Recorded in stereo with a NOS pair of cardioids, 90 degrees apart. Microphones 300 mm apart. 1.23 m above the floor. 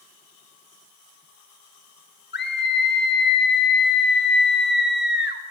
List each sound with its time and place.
2.3 s a scream: 35° left, 1.3 m